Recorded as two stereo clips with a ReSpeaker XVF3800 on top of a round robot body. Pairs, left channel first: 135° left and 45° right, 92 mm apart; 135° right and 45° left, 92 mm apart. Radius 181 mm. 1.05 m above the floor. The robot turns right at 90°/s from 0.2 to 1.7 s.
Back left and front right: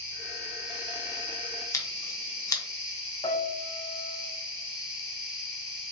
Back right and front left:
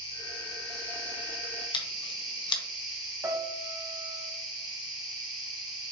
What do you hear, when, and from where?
0.0 s an insect: 165° right, 0.7 m; by 5.9 s 30° right, 0.7 m
1.7 s scissors: 170° right, 0.7 m
3.2 s a piano: 100° left, 0.9 m